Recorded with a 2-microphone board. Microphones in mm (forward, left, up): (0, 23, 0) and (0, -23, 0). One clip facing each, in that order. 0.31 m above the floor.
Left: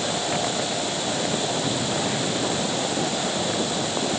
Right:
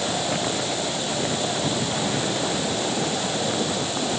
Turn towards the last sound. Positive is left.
No sound to turn to.